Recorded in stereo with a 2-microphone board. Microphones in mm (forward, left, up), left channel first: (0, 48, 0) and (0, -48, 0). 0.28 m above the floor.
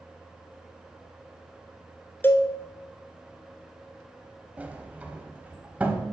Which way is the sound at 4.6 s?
15° right (ahead or behind).